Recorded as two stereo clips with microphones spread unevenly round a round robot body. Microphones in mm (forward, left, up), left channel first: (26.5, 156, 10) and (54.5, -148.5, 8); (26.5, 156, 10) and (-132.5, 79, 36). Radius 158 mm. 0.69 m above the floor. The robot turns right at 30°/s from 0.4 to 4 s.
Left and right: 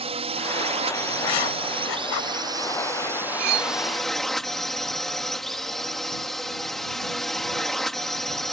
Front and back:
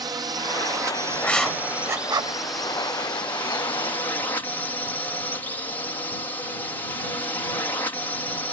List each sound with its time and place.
0.0 s a drone: 100° right; by 8.5 s 5° left
1.2 s writing: 110° left; by 2.4 s 145° left
3.4 s cutlery clinking: 55° right; by 3.7 s 45° right